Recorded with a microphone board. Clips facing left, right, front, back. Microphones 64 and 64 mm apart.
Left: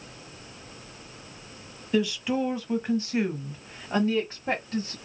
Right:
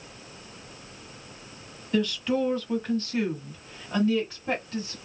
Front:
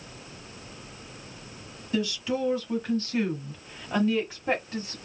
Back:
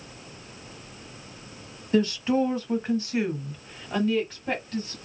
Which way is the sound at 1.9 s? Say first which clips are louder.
Even, back 6 dB; 170° left.